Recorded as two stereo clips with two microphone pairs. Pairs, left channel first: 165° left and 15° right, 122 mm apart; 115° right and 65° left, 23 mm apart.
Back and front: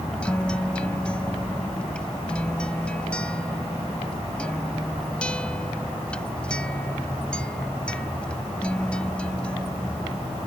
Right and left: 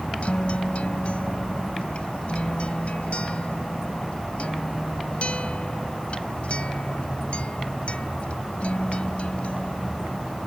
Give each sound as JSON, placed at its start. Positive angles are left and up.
{"t": 0.2, "sound": "a guitar", "azimuth_deg": -115}